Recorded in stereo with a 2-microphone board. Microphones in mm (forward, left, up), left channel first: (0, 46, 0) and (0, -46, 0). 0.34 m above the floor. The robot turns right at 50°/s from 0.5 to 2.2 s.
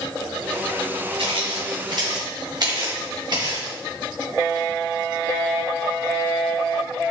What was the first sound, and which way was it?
Footsteps, 85° right.